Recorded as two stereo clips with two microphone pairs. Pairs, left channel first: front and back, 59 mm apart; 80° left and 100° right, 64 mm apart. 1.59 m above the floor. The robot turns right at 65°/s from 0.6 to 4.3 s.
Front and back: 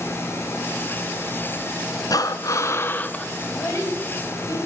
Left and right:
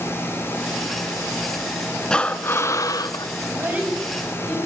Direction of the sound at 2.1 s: 5° left.